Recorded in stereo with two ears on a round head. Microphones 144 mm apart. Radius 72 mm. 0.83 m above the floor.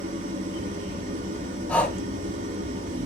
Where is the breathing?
10° left (ahead or behind), 4 m.